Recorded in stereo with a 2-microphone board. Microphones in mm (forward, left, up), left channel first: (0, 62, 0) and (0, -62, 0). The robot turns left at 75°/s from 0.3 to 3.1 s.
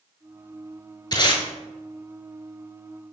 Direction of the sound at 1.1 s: 35° left (ahead or behind).